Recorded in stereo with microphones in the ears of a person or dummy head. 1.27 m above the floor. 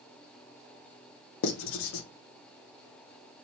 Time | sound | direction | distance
1.4 | writing | 70° left (ahead or behind) | 0.7 m